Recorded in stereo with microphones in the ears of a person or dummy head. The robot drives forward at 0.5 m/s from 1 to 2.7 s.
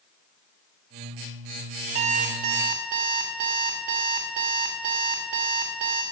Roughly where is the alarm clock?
Right.